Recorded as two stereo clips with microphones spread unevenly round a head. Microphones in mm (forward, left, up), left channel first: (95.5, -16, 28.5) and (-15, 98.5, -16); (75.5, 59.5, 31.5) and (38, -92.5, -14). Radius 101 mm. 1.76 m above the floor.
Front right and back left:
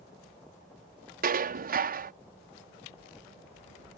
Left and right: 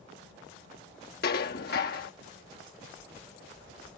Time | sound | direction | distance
1.2 | dishes clattering | 100° left | ?